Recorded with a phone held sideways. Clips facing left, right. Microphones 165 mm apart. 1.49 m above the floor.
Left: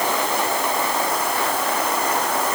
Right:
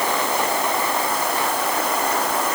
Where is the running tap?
No running tap in this recording.